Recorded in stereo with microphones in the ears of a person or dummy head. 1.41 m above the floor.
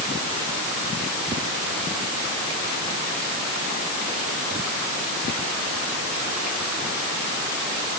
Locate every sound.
Only background noise.